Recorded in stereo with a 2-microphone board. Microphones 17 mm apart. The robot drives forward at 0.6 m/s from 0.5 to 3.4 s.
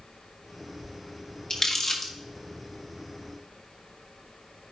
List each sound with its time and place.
1.5 s crumpling: 40° left (ahead or behind), 1.4 m; by 2.1 s 30° left (ahead or behind), 1.8 m